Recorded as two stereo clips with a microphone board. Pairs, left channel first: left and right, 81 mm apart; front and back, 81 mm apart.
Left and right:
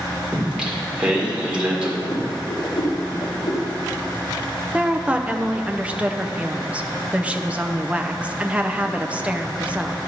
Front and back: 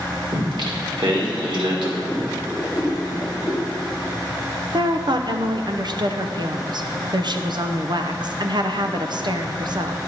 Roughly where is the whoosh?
Left.